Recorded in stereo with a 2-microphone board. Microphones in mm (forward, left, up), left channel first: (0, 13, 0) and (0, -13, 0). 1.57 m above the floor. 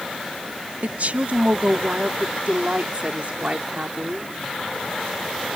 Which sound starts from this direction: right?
A woman speaking, at 0.8 s.